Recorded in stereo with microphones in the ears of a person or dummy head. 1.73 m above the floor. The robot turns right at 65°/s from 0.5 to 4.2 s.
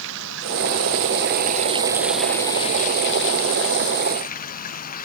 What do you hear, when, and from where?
0.0 s running water: 105° right; by 5.1 s 135° left